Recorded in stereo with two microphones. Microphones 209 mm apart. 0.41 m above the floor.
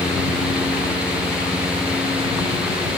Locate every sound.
Only background noise.